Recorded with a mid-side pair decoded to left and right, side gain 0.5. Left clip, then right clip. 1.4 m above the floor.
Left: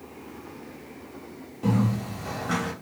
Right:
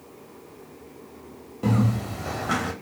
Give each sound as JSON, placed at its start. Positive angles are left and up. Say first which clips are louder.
{"t": 1.6, "sound": "a bird", "louder": "right 1 dB", "azimuth_deg": -30, "distance_m": 0.8}